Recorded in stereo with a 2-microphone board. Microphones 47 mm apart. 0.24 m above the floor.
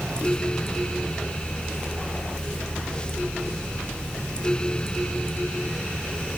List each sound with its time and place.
Only background noise.